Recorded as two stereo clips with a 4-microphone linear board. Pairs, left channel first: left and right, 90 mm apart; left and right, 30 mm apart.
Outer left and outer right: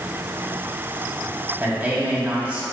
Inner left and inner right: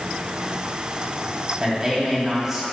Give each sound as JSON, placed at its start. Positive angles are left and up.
{"t": 1.6, "sound": "a man speaking", "side_deg": -20, "distance_m": 1.7}